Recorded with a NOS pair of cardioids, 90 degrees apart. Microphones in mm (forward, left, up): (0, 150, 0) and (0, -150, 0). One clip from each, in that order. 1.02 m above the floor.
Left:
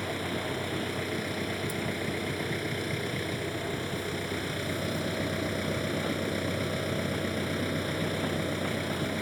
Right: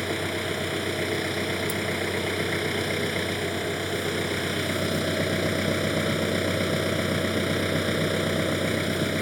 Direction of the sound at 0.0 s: 45° right.